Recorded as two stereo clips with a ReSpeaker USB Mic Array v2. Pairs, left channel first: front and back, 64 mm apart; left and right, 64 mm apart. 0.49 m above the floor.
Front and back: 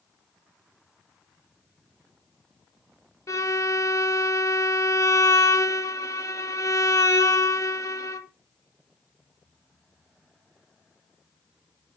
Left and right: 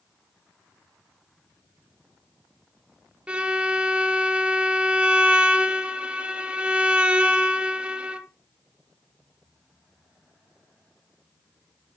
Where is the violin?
20° right, 1.0 m.